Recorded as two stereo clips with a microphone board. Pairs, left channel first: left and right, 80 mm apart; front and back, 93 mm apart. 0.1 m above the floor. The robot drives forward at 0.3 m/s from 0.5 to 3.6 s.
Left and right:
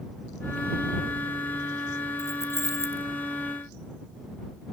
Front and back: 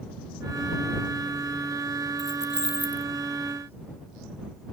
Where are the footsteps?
I don't hear footsteps.